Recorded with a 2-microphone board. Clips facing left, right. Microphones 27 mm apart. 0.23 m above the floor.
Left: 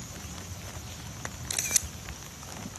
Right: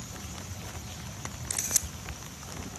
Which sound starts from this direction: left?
A camera shutter, at 1.5 s.